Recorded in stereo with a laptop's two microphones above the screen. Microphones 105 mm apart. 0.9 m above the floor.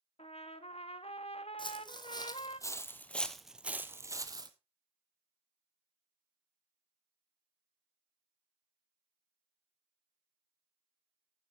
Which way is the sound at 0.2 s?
75° left (ahead or behind).